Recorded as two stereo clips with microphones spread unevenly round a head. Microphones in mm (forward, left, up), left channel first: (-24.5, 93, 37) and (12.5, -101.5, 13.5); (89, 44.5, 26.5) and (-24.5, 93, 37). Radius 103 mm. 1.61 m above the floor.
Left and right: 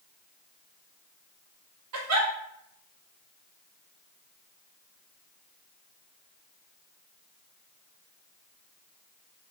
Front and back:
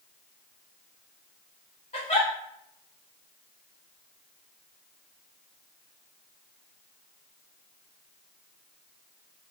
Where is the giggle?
85° right, 1.0 m.